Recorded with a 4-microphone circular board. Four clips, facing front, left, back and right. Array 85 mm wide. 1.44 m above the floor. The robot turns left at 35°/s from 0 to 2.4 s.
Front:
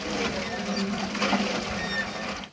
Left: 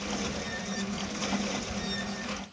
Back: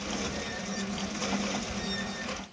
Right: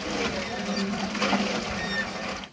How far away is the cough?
No cough in this recording.